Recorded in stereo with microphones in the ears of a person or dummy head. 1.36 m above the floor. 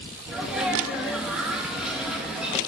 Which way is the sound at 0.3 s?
Centre (ahead or behind).